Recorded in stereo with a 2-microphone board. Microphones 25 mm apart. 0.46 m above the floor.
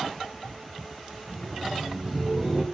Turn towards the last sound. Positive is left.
turn(degrees=-15)  # may be behind; listen again after turning